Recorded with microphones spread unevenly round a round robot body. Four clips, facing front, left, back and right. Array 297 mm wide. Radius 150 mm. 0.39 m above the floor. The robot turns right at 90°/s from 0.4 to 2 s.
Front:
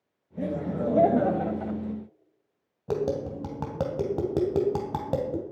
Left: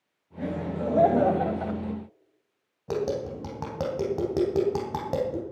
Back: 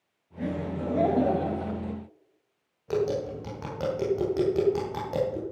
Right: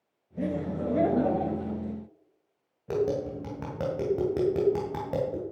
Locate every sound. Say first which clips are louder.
0.4 s laughter: even, front 2 dB; 30° right, 2.0 m; by 1.8 s 95° left, 2.0 m
2.9 s tapping: right 1 dB, back 1 dB; 15° left, 2.5 m